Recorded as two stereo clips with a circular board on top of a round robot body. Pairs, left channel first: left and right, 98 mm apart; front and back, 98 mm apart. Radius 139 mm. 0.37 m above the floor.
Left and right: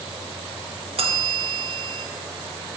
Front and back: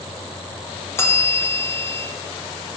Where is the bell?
65° right, 0.7 m.